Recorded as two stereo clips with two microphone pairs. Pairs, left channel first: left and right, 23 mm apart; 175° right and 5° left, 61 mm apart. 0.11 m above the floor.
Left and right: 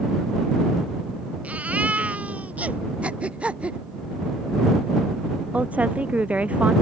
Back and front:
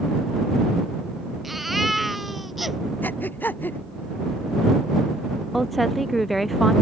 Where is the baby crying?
85° right.